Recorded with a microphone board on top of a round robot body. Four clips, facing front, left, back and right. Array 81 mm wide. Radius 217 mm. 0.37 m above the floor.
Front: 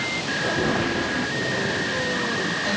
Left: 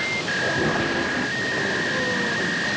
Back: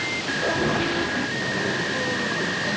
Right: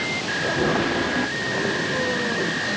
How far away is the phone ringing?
I don't hear a phone ringing.